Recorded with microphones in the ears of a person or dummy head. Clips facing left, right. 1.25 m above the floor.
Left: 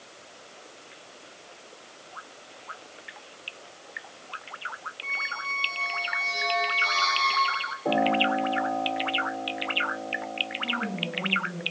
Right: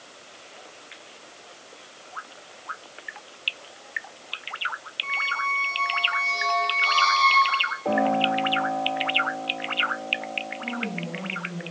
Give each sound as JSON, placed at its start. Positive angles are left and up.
{"t": 5.0, "sound": "a squeak", "side_deg": 20, "distance_m": 0.6}
{"t": 7.8, "sound": "a piano", "side_deg": 10, "distance_m": 2.5}
{"t": 10.6, "sound": "a woman speaking", "side_deg": 25, "distance_m": 7.5}